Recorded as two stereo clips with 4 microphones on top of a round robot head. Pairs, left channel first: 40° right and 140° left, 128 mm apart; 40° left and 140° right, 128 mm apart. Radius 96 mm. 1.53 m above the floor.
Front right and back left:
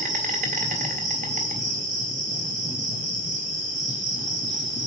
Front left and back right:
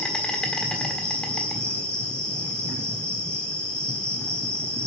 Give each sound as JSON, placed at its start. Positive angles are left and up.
{"t": 0.0, "sound": "an insect", "azimuth_deg": 120, "distance_m": 1.5}